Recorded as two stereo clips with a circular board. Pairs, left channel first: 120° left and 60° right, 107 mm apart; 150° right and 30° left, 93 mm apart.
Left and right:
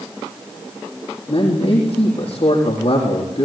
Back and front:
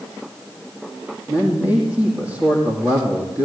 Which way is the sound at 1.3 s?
100° left.